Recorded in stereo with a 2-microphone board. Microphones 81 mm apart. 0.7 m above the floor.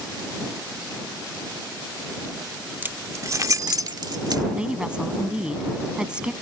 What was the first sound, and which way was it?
Keys jangling, 25° right (ahead or behind).